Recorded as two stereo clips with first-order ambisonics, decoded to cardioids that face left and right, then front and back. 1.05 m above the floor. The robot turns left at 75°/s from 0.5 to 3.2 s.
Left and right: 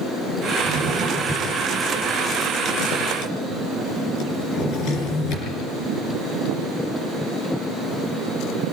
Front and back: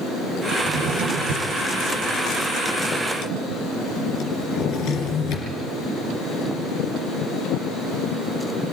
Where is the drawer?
120° right, 5 m; by 5.5 s 45° left, 5 m.